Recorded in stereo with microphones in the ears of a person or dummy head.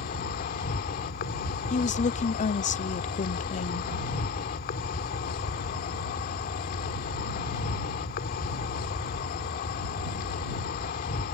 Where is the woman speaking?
35° left (ahead or behind).